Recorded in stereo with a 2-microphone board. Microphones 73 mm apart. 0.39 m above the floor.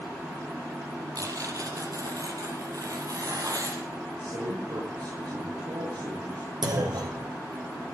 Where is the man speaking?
80° right, 8 m.